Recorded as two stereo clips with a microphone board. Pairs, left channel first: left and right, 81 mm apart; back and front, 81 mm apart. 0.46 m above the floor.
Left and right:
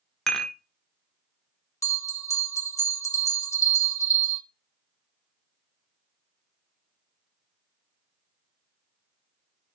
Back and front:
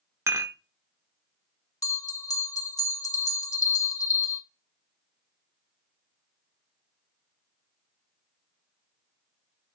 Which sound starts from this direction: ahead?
Dishes clattering, at 0.3 s.